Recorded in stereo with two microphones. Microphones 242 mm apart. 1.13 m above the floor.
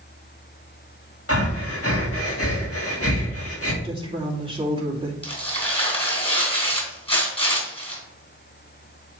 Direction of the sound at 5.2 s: 25° left (ahead or behind).